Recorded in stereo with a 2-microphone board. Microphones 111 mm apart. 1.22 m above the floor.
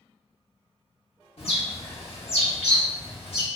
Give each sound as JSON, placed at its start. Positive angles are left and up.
{"t": 1.4, "sound": "a bird", "side_deg": 65, "distance_m": 1.3}